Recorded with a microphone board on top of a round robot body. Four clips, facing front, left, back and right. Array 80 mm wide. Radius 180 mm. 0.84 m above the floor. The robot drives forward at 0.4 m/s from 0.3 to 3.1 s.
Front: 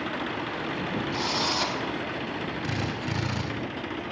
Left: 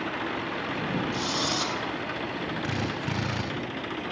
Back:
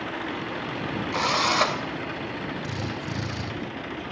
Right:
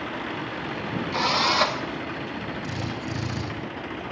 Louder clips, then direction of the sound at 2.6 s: Left 1 dB, front 1 dB; 80° left.